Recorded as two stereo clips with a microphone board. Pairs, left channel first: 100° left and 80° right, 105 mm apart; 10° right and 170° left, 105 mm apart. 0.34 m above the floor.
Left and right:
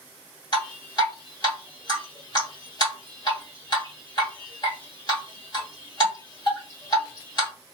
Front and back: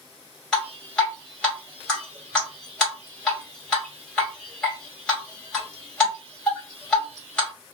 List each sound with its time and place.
0.5 s dripping: 70° left, 2.0 m